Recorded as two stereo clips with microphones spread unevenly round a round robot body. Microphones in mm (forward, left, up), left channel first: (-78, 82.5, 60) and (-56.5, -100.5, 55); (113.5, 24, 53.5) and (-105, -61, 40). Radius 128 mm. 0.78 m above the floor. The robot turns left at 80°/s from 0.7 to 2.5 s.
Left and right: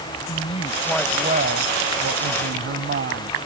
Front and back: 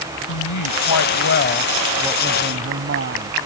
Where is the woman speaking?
30° left; by 3.4 s 115° right.